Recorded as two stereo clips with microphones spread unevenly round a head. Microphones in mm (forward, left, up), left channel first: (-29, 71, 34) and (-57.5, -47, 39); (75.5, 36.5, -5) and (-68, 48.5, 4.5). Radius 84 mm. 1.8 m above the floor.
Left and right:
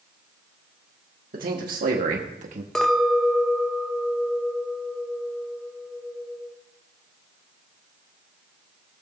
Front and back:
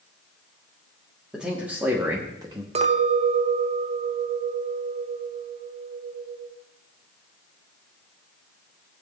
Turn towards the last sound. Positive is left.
turn(degrees=165)